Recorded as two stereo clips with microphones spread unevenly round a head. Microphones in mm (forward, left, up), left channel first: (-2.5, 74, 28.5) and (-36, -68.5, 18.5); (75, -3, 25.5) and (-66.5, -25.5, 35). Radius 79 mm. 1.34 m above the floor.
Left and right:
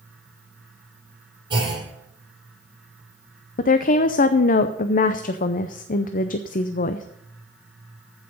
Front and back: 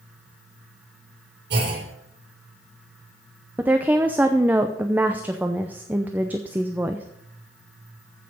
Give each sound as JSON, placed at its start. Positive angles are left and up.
{"t": 1.5, "sound": "a clunk", "azimuth_deg": -165, "distance_m": 7.5}
{"t": 3.6, "sound": "a woman speaking", "azimuth_deg": 110, "distance_m": 0.6}